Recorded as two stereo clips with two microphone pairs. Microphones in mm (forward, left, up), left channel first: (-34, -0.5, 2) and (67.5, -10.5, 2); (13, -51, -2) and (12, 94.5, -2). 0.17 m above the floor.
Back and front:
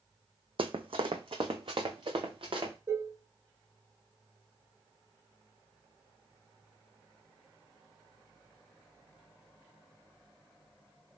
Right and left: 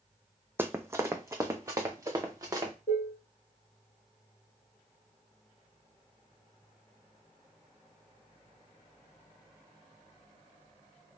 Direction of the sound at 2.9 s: 55° right.